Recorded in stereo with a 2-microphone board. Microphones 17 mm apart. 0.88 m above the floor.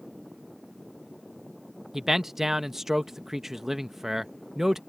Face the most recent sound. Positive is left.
turn(degrees=-20)  # may be behind; listen again after turning